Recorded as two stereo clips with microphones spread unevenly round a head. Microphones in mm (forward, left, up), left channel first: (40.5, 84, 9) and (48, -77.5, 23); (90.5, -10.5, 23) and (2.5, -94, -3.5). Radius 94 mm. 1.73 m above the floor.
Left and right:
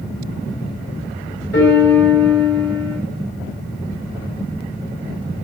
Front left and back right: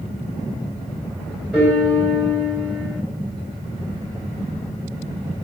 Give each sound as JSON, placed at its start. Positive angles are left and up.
{"t": 1.5, "sound": "a piano", "azimuth_deg": 135, "distance_m": 2.5}